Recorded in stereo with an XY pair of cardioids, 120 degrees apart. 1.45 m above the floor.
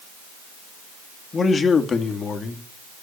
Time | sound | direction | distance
1.3 | a man speaking | 30° left | 2.5 m